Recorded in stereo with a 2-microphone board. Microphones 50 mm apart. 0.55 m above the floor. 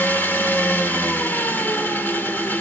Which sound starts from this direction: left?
An engine running, at 0.0 s.